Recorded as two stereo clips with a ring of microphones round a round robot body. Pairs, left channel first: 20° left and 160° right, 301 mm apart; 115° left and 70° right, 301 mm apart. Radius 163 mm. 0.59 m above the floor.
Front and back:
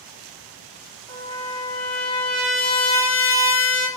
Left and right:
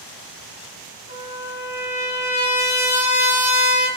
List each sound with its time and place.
1.1 s a trumpet: 30° left, 1.9 m